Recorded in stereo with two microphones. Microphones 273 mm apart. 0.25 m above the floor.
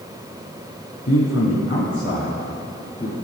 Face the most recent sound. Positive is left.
turn(degrees=25)  # may be behind; listen again after turning